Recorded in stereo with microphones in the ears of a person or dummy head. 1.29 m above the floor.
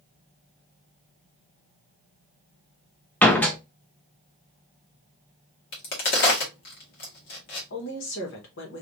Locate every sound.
3.2 s a door slam: 5° left (ahead or behind), 0.8 m
5.7 s a crack: 55° left (ahead or behind), 1.5 m
7.7 s a woman speaking: 70° left (ahead or behind), 1.5 m